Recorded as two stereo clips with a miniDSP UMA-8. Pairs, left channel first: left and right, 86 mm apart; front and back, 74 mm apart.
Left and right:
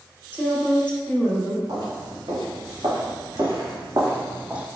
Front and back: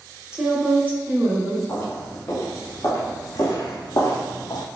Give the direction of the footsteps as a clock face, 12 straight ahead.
2 o'clock.